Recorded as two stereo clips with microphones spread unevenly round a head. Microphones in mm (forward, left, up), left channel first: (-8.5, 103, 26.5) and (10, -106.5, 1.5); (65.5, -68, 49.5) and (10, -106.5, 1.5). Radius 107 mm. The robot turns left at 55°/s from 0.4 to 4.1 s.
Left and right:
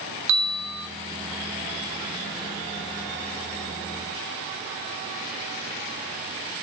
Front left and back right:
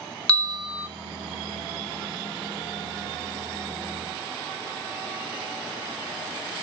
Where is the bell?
55° right, 1.1 m; by 0.9 s 85° right, 1.1 m.